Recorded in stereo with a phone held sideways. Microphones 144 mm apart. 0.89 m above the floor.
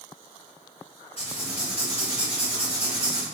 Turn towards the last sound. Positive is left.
turn(degrees=40)  # may be behind; listen again after turning